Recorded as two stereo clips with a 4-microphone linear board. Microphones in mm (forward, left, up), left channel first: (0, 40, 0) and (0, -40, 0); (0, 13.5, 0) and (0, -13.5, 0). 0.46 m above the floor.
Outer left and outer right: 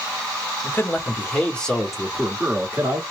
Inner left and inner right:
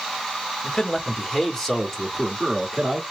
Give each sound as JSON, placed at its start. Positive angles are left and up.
{"t": 0.6, "sound": "a man speaking", "side_deg": 30, "distance_m": 1.4}